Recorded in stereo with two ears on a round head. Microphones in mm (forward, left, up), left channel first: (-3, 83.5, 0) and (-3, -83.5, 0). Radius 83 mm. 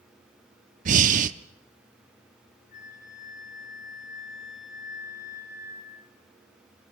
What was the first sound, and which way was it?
Breathing, 45° right (ahead or behind).